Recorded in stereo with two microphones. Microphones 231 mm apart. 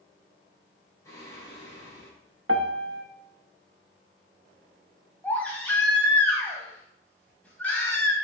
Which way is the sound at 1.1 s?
15° left (ahead or behind).